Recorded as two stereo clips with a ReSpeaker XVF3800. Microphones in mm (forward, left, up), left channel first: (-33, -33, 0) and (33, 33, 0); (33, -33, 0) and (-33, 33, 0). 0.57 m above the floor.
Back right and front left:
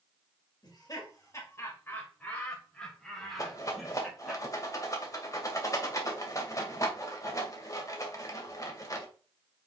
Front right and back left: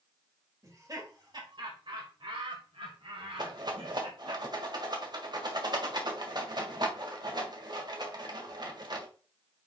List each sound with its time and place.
0.6 s laughter: 175° right, 2 m; by 4.4 s 130° left, 3.5 m
3.4 s a rattle: 170° left, 1.9 m